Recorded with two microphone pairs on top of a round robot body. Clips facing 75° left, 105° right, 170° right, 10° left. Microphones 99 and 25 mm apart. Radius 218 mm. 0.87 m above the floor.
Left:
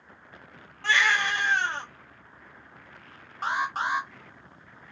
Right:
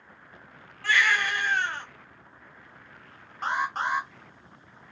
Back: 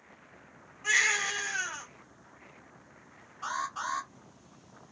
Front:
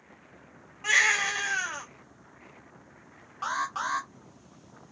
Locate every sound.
0.8 s a baby crying: 10° left, 0.9 m
3.4 s an alarm: 5° right, 0.9 m